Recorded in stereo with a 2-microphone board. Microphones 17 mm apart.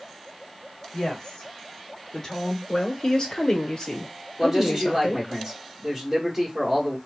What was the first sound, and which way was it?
A woman speaking, 45° left (ahead or behind).